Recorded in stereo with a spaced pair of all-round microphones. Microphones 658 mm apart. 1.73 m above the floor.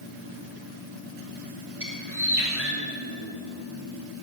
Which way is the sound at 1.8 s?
20° right (ahead or behind).